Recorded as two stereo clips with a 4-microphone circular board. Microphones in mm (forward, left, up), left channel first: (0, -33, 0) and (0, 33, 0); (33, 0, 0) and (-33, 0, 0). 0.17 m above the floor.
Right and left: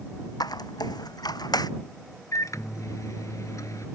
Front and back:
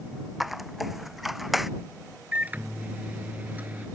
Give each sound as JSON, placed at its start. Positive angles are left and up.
{"t": 0.4, "sound": "a squeak", "azimuth_deg": -95}
{"t": 2.3, "sound": "a microwave", "azimuth_deg": -115}